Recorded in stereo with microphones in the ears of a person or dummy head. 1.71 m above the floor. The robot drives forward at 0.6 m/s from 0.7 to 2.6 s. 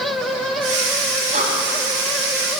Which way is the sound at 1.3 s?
45° right (ahead or behind).